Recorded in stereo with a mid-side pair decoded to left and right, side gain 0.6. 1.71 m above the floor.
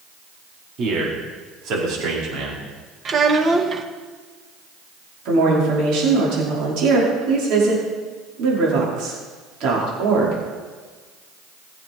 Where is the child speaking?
35° right, 1.7 m.